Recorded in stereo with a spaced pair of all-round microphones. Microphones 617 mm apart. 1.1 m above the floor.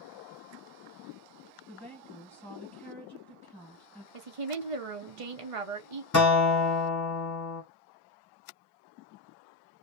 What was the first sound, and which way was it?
A woman speaking, 5° left (ahead or behind).